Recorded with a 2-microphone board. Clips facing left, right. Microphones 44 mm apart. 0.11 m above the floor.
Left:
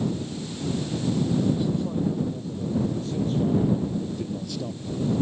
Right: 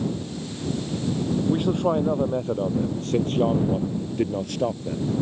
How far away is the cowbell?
No cowbell in this recording.